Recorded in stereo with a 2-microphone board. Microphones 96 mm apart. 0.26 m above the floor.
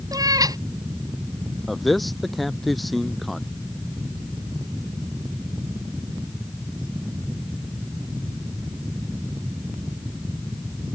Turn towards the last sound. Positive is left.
turn(degrees=0)  # may be behind; listen again after turning